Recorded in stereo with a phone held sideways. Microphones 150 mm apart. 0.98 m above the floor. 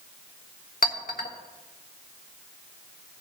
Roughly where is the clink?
Left.